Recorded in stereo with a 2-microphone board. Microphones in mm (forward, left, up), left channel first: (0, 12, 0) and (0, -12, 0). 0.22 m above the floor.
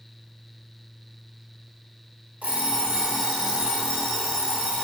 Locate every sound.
2.4 s an alarm clock: 80° right, 3.5 m